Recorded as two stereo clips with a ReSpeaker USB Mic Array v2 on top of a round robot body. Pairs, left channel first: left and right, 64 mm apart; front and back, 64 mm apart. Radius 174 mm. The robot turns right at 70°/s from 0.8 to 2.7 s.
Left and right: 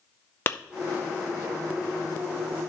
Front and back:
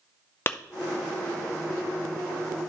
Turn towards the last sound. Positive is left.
turn(degrees=180)